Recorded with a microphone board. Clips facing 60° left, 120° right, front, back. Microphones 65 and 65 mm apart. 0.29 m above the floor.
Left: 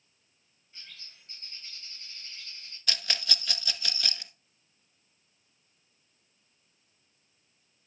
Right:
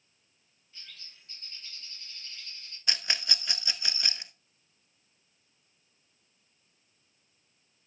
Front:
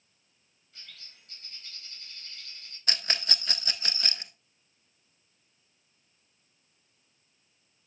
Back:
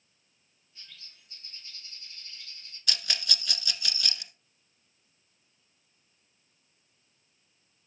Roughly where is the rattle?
Ahead right.